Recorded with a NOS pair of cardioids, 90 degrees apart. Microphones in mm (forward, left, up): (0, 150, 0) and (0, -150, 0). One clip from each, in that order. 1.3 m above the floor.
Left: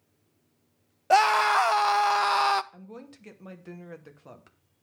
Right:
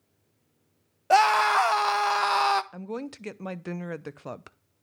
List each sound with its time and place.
1.1 s a scream: straight ahead, 0.6 m
2.7 s a woman speaking: 50° right, 0.7 m